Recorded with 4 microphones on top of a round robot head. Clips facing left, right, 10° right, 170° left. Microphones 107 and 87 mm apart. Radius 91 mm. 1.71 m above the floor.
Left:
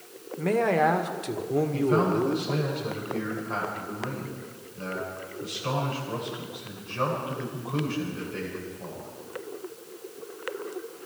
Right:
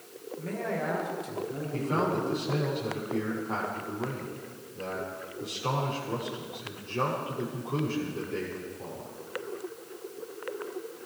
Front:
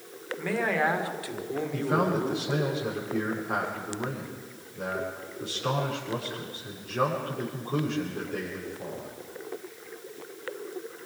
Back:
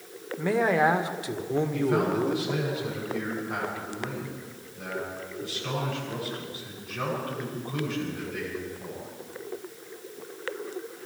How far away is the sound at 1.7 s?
About 7 m.